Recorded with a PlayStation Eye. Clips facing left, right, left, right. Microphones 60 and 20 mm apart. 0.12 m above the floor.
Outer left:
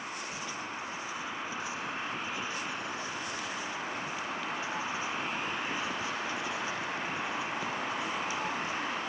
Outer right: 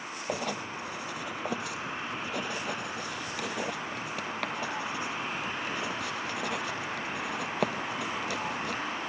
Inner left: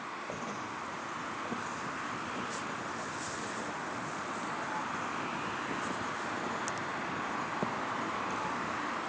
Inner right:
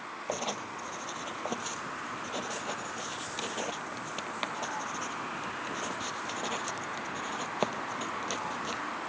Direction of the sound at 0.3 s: 70° right (ahead or behind).